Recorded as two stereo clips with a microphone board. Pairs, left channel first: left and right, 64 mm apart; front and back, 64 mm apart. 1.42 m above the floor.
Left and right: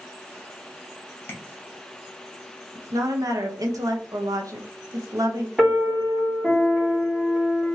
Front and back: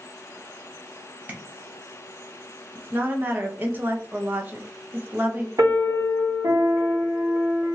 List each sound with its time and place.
1.3 s tapping: 125° left, 0.9 m
2.8 s a woman speaking: 120° right, 0.8 m
5.6 s a piano: 175° right, 1.4 m